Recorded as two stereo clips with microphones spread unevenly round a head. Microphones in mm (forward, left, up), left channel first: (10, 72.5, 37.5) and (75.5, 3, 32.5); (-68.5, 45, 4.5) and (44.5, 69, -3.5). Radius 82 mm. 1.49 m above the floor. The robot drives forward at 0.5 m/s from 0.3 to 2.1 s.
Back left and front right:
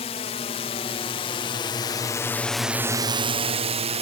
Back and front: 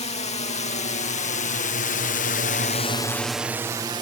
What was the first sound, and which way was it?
A drone, 165° left.